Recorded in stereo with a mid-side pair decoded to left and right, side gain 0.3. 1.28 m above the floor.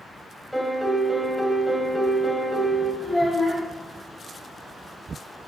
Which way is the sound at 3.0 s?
5° left.